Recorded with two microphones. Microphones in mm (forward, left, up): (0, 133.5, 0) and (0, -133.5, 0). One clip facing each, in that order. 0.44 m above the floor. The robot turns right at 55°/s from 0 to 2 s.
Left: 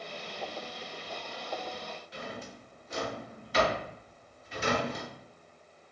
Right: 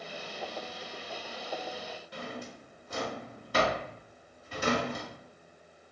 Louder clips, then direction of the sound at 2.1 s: Right 2 dB; 65° right (ahead or behind).